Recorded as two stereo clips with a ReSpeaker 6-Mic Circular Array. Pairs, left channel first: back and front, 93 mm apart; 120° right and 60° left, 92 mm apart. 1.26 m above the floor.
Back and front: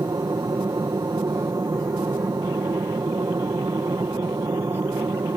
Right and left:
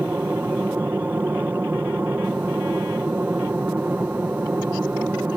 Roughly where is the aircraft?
Ahead.